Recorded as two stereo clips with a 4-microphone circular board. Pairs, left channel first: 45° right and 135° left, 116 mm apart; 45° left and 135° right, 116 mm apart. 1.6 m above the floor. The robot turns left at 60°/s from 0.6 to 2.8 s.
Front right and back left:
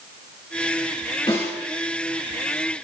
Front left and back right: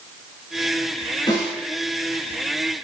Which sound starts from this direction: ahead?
A snare drum, at 1.3 s.